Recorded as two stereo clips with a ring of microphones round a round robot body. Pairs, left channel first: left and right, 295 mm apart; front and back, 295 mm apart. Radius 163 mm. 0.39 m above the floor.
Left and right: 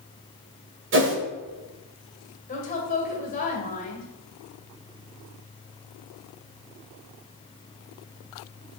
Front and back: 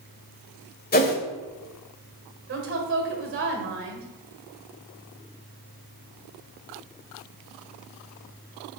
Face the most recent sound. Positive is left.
turn(degrees=150)